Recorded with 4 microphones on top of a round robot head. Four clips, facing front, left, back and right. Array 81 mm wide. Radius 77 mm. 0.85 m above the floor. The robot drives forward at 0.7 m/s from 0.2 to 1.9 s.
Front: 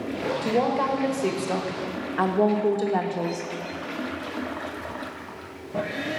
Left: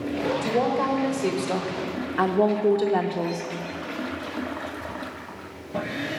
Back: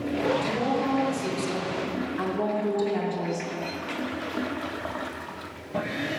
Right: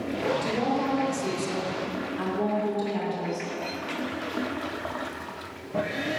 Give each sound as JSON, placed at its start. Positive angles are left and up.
{"t": 0.4, "sound": "a woman speaking", "azimuth_deg": 20, "distance_m": 1.6}